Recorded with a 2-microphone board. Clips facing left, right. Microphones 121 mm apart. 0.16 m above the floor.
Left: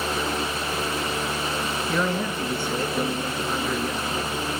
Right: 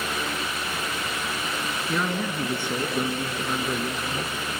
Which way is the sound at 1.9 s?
10° right (ahead or behind).